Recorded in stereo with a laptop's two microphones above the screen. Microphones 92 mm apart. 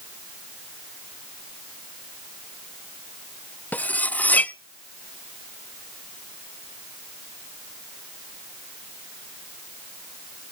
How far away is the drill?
I don't hear a drill.